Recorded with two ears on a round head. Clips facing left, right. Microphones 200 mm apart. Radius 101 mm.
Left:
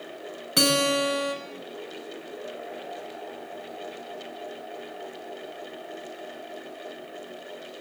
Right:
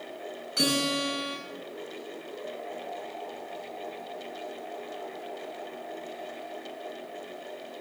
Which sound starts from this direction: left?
A guitar, at 0.6 s.